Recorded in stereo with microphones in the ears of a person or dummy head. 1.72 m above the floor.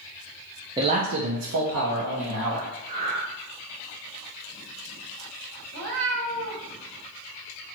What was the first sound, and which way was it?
A man speaking, 20° right (ahead or behind).